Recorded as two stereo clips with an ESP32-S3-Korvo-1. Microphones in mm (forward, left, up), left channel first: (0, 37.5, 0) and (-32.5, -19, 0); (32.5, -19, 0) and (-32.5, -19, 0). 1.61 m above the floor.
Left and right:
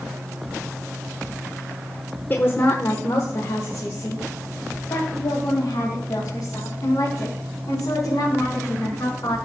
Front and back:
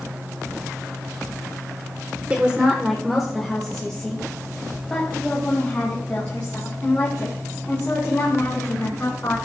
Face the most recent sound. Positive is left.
turn(degrees=55)